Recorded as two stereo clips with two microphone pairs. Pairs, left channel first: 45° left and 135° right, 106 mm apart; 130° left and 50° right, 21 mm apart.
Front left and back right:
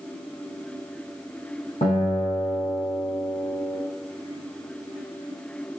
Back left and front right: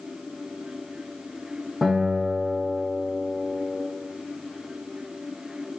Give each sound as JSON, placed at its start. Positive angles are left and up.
{"t": 1.8, "sound": "a guitar", "azimuth_deg": 50, "distance_m": 5.5}